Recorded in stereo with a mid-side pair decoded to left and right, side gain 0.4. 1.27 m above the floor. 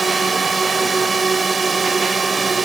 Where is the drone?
40° right.